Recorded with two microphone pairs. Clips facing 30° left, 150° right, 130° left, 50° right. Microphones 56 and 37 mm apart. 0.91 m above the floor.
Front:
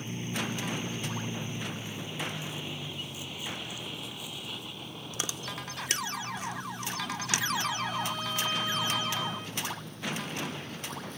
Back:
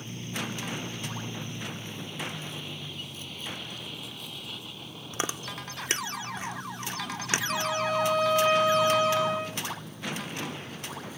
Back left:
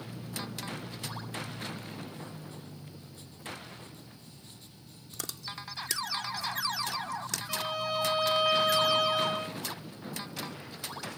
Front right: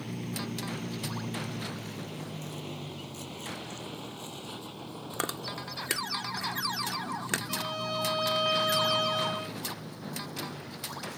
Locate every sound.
0.0 s a vehicle: 40° right; by 11.2 s 70° right
5.1 s chewing: 95° right
7.5 s a violin: 150° right